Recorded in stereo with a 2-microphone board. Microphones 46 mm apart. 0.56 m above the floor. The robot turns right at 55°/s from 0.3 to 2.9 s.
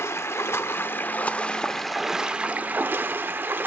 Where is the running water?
95° left, 0.7 m; by 3.7 s 125° right, 0.7 m.